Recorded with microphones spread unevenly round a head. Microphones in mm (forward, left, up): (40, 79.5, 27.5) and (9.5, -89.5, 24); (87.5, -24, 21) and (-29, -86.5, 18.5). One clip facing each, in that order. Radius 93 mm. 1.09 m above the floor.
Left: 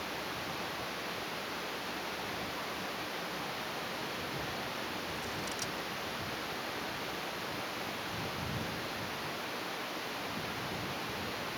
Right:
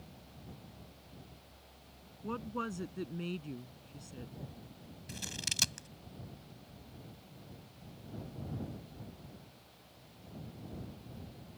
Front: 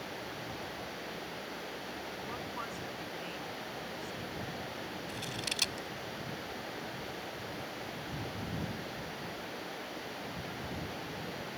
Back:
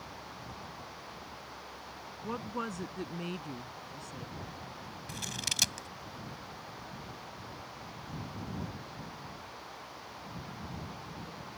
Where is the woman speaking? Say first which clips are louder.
Right 2 dB, back 3 dB; 120° right.